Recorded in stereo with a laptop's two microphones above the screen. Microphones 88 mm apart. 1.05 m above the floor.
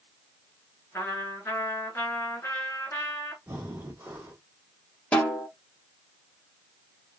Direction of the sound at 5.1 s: 15° left (ahead or behind).